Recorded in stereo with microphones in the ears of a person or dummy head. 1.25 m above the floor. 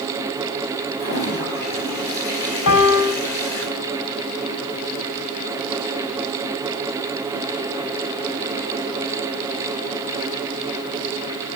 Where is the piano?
85° left, 5.5 m.